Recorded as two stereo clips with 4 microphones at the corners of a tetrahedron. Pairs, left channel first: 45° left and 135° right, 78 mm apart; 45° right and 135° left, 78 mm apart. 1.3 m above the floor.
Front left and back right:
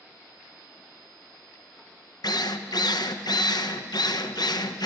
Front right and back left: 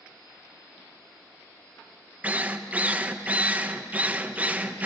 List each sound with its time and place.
2.2 s a drill: 65° left, 1.0 m